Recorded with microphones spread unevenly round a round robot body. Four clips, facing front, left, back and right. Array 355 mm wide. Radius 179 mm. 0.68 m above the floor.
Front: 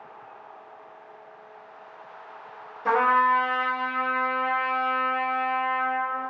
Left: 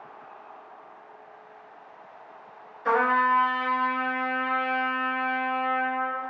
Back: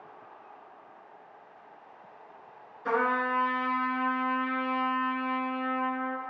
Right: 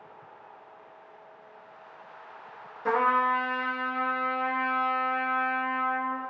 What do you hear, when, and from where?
2.9 s a trumpet: 55° right, 1.5 m